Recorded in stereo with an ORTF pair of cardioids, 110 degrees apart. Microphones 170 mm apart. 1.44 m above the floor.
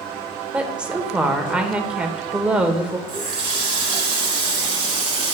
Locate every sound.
0.5 s a woman speaking: 5° right, 1.2 m
3.1 s a running tap: 35° right, 3 m